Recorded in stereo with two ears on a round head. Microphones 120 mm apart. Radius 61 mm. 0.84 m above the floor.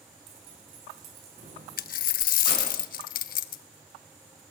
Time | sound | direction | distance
0.3 | keys jangling | 50° right (ahead or behind) | 6 m
1.8 | a dropped coin | 70° left (ahead or behind) | 0.7 m